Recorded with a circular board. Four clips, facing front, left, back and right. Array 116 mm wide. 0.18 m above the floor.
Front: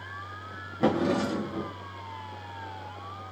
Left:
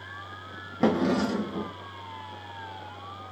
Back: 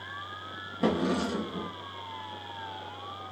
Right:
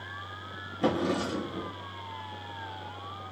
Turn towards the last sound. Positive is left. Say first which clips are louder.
# left 4 dB, front 2 dB
turn(degrees=70)